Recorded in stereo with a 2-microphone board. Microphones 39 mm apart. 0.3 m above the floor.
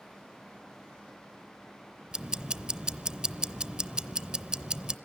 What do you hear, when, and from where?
2.1 s ticking: 20° right (ahead or behind), 0.6 m